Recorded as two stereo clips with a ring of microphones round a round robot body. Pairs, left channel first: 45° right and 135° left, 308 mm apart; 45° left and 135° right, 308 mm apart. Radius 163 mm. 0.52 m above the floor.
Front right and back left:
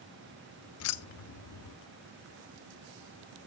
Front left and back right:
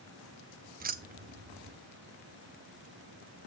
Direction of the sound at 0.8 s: 75° right.